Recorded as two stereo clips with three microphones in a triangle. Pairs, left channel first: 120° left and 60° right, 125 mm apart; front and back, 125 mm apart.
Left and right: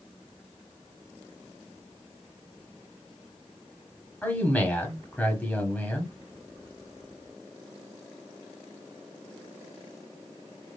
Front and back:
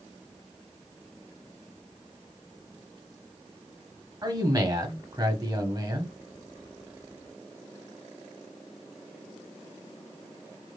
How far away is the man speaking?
About 1.1 m.